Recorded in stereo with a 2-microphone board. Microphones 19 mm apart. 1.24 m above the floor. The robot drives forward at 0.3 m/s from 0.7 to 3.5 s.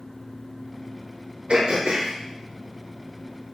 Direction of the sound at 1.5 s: 80° right.